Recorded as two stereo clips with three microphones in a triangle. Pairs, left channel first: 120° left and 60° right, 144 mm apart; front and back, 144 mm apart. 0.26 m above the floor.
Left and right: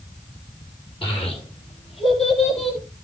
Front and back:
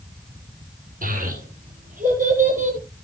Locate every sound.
1.0 s a child speaking: 170° left, 7.5 m; by 2.8 s 155° left, 5.5 m